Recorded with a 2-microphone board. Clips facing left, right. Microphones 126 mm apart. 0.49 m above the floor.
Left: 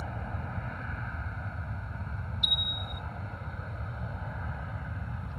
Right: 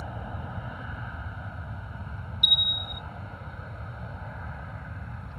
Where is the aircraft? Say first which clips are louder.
Right 1 dB; 10° right (ahead or behind); by 5.4 s centre (ahead or behind).